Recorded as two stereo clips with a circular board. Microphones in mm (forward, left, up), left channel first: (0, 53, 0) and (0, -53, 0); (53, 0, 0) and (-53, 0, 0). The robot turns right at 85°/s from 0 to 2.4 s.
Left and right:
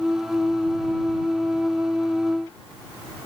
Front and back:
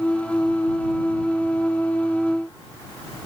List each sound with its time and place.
Only background noise.